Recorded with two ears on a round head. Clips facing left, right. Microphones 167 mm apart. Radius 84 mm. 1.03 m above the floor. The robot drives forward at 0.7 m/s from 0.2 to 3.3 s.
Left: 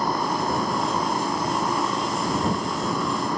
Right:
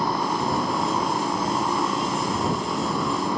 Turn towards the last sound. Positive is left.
turn(degrees=-5)  # may be behind; listen again after turning